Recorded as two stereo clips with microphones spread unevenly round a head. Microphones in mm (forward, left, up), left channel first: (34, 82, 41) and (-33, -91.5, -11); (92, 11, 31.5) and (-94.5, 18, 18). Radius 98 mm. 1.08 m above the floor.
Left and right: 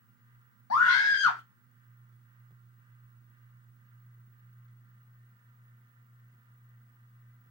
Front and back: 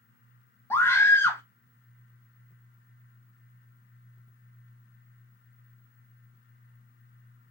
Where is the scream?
75° left, 0.7 m.